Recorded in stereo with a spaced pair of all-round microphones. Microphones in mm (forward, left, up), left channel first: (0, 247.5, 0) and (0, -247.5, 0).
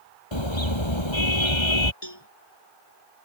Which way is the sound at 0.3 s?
70° left (ahead or behind).